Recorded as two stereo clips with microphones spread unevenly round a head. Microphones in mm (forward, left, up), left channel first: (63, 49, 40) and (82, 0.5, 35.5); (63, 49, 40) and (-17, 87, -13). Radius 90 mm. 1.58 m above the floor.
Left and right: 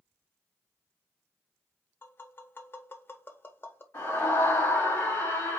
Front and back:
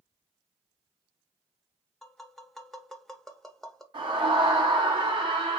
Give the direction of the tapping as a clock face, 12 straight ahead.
10 o'clock.